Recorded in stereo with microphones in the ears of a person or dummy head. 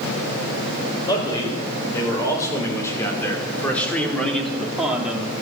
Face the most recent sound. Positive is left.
turn(degrees=-10)  # may be behind; listen again after turning